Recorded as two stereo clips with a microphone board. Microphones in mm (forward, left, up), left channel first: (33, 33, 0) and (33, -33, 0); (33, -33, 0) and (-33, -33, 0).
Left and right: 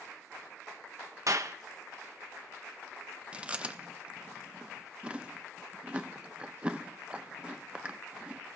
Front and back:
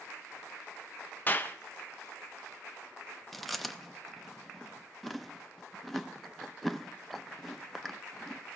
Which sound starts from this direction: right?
Chewing, at 3.3 s.